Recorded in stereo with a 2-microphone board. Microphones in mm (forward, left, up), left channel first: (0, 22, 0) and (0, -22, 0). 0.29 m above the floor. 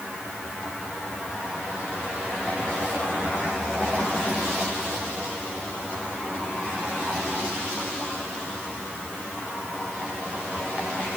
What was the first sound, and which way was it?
Only background noise.